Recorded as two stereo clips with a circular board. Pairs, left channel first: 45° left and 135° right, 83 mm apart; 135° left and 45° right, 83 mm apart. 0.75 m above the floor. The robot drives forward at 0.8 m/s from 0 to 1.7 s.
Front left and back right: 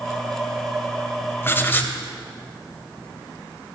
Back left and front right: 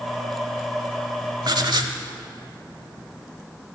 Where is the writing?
15° right, 1.3 m; by 2.0 s 20° right, 1.1 m.